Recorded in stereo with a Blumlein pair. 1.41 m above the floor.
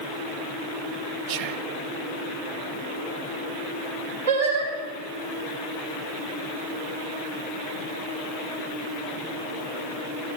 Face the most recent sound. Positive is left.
turn(degrees=-65)